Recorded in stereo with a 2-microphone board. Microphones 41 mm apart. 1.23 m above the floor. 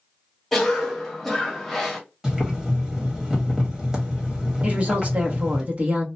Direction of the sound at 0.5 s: 5° left (ahead or behind).